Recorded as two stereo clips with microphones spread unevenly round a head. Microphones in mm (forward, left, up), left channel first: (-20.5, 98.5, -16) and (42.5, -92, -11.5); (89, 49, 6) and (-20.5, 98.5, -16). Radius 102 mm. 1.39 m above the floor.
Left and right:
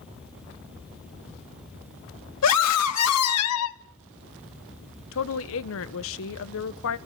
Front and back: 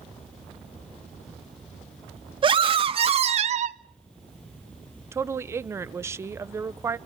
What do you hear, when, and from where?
2.4 s a scream: 110° left, 2.5 m; by 3.8 s 135° left, 1.0 m
5.1 s a woman speaking: 90° left, 1.0 m